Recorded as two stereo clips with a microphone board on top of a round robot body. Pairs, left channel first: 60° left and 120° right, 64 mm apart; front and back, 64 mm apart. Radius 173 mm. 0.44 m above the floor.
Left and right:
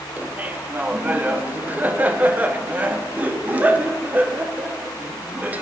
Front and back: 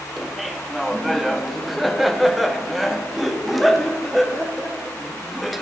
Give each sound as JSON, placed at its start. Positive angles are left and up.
{"t": 0.2, "sound": "laughter", "azimuth_deg": -90, "distance_m": 0.9}